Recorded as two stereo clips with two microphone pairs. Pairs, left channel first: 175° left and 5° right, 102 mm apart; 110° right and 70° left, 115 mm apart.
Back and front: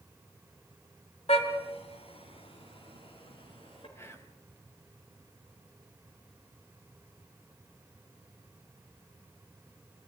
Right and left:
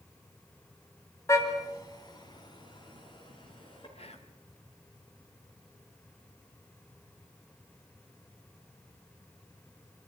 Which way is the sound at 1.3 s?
175° right.